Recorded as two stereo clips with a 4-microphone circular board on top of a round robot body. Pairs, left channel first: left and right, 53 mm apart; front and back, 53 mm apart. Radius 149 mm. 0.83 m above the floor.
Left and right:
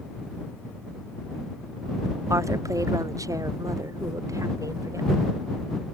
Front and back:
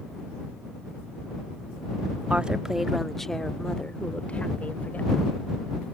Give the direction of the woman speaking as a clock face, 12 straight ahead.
4 o'clock.